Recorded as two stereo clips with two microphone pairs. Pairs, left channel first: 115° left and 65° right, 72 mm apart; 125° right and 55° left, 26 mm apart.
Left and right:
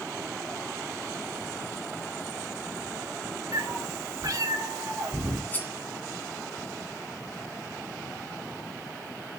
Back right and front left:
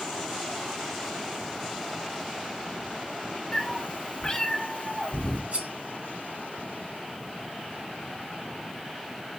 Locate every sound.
3.5 s a cat meowing: 65° right, 1.2 m
5.5 s cutlery clinking: 50° left, 1.1 m